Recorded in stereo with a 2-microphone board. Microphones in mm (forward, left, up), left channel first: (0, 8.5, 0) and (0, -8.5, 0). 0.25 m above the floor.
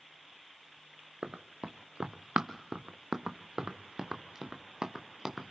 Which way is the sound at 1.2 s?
70° right (ahead or behind).